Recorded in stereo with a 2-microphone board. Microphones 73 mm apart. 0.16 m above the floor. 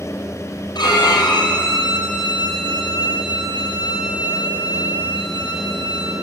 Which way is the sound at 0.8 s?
75° left (ahead or behind).